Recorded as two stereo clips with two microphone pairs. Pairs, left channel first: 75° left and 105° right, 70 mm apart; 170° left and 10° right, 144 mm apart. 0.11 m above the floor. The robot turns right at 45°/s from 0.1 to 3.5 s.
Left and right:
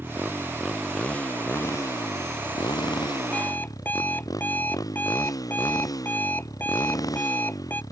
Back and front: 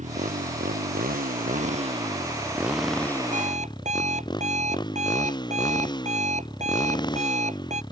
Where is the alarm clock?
10° left; by 7.8 s 15° left.